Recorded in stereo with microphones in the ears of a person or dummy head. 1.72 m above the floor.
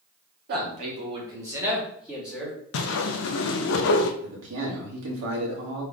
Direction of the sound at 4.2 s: 80° right.